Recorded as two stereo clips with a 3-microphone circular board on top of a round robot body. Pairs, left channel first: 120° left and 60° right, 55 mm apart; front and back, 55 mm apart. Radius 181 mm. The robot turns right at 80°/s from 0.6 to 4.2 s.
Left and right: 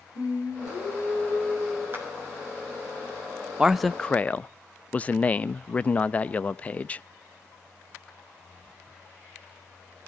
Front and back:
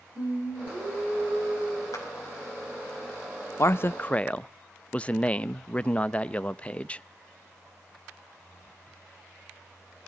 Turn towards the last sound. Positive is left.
turn(degrees=60)